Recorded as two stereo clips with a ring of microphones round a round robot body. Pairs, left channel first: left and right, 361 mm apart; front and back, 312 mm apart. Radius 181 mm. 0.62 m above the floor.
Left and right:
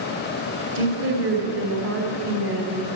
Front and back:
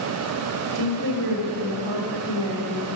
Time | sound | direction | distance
0.8 | a woman speaking | 145° right | 2.5 m